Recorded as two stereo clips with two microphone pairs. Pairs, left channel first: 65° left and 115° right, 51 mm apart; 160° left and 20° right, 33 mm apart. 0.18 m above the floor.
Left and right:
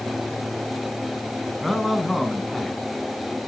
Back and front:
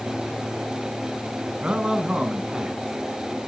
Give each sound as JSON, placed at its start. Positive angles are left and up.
{"t": 1.6, "sound": "a man speaking", "azimuth_deg": -20, "distance_m": 1.2}